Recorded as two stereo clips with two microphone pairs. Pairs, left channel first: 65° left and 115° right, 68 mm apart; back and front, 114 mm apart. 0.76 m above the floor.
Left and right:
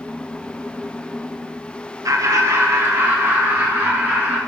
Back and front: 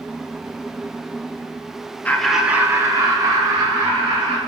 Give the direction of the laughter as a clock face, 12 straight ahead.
4 o'clock.